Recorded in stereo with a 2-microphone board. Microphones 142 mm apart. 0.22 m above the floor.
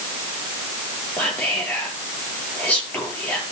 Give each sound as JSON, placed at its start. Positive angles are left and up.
{"t": 1.2, "sound": "whispering", "side_deg": 10, "distance_m": 5.5}